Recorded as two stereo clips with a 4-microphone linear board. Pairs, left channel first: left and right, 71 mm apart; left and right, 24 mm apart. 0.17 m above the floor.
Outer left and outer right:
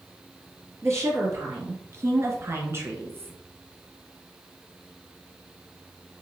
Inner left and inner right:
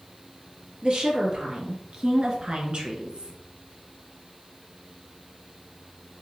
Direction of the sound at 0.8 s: 45° right (ahead or behind).